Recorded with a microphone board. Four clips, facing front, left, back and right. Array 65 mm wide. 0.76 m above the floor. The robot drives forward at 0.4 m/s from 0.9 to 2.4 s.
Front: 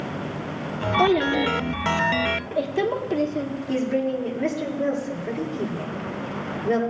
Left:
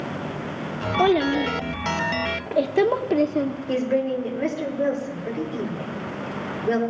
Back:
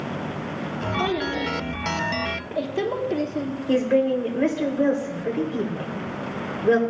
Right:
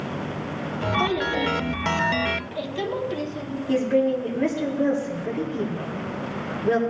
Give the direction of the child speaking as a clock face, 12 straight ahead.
10 o'clock.